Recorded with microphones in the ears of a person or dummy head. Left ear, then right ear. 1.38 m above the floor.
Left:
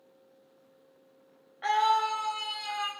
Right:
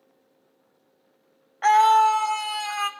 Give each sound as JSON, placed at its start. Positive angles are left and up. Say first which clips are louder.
{"t": 1.6, "sound": "a scream", "louder": "right 9 dB", "side_deg": -45, "distance_m": 0.6}